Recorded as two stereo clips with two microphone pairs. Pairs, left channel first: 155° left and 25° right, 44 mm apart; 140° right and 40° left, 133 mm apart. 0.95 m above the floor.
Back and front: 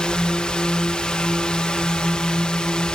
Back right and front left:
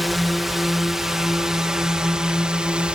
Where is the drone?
130° left; by 3.0 s 115° left.